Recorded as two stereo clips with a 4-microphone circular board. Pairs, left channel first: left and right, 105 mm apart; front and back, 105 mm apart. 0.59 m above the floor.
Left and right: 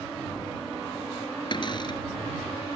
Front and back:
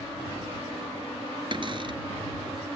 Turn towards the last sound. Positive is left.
turn(degrees=135)